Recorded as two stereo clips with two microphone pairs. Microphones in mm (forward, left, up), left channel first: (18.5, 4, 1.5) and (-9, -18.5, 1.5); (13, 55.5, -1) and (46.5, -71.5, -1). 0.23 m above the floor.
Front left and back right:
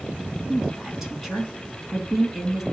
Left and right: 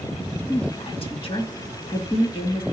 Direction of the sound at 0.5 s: 140° left.